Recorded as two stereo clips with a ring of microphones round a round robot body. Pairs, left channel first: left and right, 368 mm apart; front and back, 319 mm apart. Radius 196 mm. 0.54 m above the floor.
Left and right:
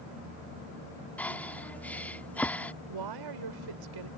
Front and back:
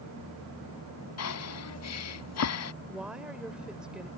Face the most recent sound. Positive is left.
turn(degrees=-90)